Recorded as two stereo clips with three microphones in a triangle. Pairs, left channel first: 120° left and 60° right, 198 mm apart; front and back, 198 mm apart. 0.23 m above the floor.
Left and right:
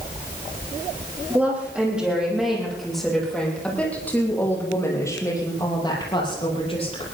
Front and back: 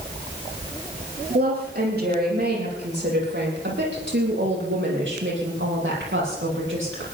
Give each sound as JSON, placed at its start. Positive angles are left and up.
{"t": 1.3, "sound": "a woman speaking", "azimuth_deg": -140, "distance_m": 9.0}